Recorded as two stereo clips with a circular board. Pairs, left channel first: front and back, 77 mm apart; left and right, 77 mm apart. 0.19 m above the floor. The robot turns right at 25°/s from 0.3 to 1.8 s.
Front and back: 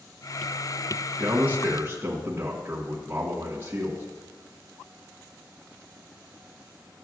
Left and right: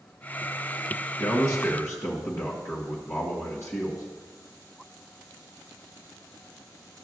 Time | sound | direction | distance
1.2 | a man speaking | 115° left | 1.5 m